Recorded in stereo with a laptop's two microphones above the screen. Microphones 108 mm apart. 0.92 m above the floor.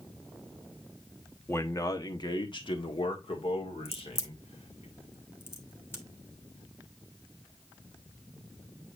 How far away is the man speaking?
About 1.2 m.